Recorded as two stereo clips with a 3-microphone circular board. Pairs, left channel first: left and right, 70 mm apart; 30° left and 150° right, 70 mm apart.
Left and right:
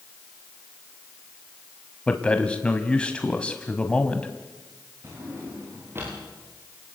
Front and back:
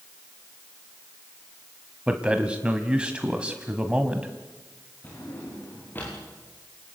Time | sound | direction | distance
2.1 | a man speaking | 150° left | 1.4 m
5.0 | a drawer | 35° right | 8.5 m